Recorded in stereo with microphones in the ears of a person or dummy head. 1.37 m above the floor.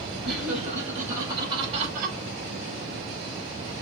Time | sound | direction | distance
0.2 | laughter | 5° right (ahead or behind) | 3.5 m